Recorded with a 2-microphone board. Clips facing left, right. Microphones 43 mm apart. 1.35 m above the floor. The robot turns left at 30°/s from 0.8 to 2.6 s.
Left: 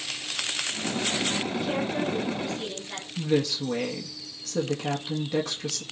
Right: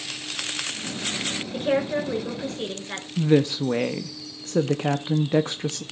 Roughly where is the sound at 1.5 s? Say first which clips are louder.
Right 4 dB; right.